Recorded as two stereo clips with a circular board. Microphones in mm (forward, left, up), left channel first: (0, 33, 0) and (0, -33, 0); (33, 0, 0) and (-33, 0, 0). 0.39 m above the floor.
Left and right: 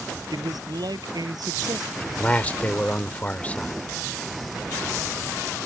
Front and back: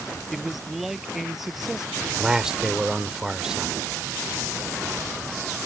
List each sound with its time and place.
0.3 s a man speaking: 90° right; by 1.9 s 95° right
2.0 s a man speaking: 115° left